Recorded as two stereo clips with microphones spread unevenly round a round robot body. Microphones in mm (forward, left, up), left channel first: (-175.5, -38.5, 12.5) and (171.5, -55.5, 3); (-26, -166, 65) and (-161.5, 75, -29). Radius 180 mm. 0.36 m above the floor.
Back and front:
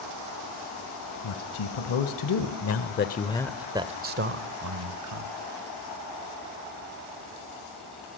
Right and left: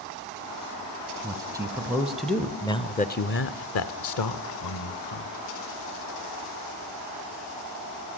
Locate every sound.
1.2 s a man speaking: 175° right, 2 m; by 5.3 s 25° right, 1.8 m